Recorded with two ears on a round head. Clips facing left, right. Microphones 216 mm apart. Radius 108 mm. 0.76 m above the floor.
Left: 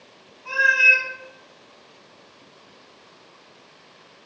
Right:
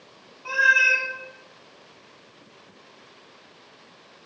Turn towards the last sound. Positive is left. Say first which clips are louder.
# left 1 dB
turn(degrees=-65)  # may be behind; listen again after turning